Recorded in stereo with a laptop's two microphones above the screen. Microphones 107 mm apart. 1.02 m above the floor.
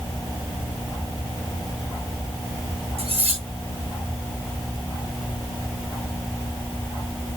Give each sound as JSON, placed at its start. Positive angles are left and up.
{"t": 3.0, "sound": "cutlery clinking", "side_deg": -75, "distance_m": 6.5}